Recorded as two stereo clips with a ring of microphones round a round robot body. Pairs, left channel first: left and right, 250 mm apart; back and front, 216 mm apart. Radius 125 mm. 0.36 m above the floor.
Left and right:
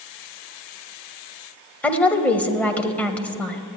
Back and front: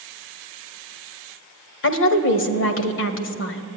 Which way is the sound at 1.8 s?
175° left.